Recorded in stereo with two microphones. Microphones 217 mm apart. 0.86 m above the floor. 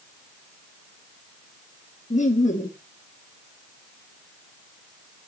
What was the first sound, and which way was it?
Laughter, 35° left (ahead or behind).